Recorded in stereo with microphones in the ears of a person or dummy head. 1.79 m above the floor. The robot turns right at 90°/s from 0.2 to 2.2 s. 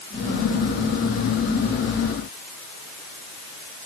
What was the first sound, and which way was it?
Only background noise.